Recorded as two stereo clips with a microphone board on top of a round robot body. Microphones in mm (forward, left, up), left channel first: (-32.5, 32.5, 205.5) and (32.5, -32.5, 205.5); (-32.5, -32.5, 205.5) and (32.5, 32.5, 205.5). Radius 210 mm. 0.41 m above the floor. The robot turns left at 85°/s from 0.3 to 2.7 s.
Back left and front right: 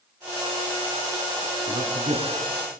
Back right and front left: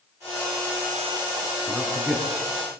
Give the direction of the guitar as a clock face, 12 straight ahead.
I don't hear a guitar.